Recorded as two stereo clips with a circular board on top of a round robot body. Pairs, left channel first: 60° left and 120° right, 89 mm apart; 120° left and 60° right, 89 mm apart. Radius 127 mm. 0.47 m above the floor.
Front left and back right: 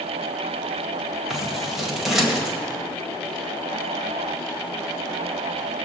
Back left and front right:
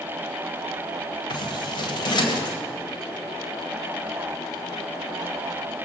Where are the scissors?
155° left, 2.0 m.